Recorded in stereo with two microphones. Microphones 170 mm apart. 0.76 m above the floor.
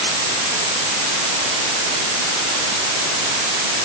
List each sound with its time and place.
Only background noise.